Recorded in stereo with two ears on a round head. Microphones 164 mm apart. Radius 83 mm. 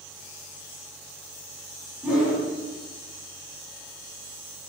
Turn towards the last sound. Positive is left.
turn(degrees=-5)  # may be behind; listen again after turning